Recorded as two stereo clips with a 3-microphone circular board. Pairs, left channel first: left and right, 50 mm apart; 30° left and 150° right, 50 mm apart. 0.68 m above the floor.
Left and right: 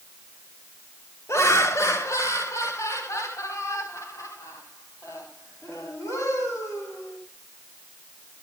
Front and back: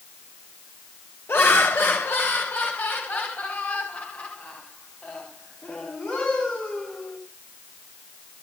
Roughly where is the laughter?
Left.